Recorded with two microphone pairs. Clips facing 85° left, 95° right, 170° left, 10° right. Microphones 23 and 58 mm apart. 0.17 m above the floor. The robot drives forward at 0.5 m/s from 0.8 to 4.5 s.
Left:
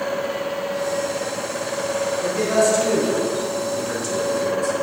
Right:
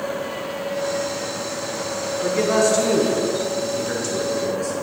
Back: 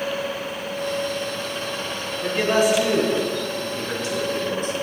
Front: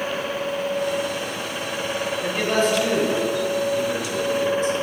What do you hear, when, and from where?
2.2 s a man speaking: 105° right, 1.1 m; by 4.8 s 160° right, 1.6 m